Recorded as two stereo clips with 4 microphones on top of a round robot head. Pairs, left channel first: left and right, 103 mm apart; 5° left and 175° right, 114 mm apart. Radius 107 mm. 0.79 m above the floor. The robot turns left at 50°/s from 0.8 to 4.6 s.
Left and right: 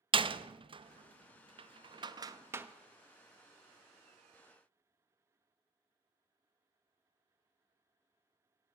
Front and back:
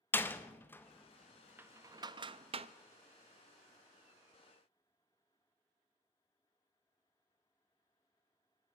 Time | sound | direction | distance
0.1 | a door slam | 65° right | 0.8 m